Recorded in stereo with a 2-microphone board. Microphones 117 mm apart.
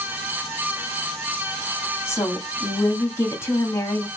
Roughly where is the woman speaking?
Left.